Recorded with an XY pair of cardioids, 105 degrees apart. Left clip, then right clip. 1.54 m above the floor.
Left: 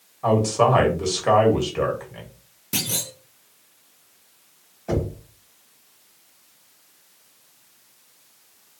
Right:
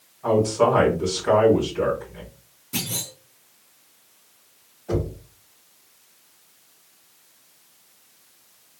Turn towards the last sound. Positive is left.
turn(degrees=70)